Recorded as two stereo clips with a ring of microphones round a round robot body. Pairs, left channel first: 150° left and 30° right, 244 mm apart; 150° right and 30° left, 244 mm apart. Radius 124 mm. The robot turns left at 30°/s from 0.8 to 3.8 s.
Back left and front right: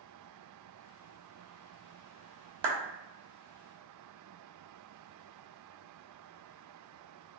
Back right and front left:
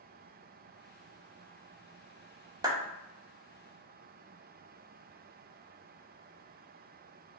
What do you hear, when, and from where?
2.6 s a clap: 45° right, 0.8 m